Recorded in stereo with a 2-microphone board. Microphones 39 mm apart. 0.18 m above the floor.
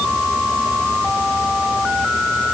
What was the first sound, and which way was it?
Only background noise.